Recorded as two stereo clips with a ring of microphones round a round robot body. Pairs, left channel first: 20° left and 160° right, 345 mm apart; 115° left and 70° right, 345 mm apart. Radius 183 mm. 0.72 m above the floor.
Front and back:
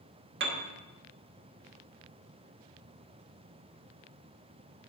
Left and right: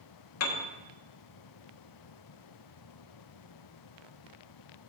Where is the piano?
150° left, 1.1 m.